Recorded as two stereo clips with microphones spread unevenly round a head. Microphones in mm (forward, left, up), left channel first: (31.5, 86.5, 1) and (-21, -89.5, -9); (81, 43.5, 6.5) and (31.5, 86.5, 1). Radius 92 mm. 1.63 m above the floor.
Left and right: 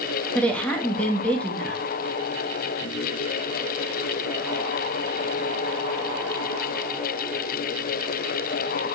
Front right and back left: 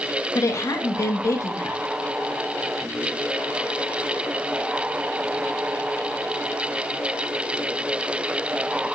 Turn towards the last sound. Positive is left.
turn(degrees=-10)